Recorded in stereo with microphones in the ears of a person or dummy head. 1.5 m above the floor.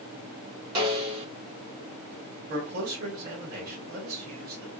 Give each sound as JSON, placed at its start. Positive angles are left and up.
{"t": 0.8, "sound": "a snare drum", "side_deg": -30, "distance_m": 1.1}
{"t": 2.5, "sound": "a man speaking", "side_deg": -50, "distance_m": 1.7}